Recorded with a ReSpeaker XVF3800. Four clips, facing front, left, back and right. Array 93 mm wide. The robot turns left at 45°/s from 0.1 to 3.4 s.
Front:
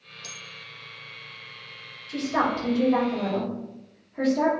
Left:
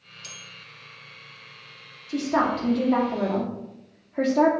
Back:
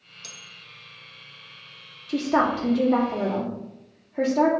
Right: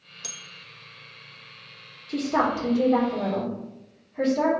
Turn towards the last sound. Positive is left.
turn(degrees=110)